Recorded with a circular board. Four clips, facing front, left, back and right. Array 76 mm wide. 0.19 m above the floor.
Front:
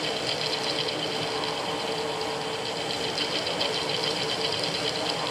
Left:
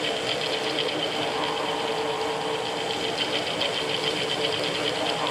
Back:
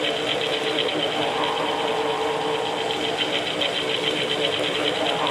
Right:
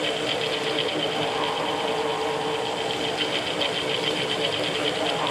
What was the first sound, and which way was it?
Only background noise.